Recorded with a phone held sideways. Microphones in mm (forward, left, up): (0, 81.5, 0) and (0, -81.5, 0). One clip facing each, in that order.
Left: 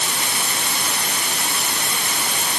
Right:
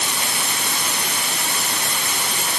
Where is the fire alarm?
I don't hear a fire alarm.